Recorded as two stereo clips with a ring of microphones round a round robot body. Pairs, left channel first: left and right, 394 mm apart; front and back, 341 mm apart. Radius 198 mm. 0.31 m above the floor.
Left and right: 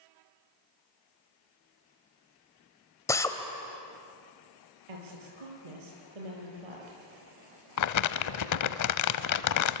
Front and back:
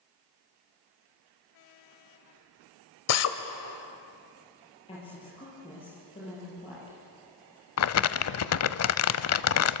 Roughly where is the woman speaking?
Right.